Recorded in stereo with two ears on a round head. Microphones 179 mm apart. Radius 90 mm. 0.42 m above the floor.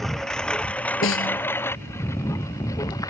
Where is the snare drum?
75° left (ahead or behind).